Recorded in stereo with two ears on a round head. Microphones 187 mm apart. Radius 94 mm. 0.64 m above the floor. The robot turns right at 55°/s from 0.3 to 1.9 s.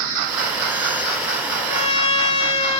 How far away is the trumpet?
About 1.9 m.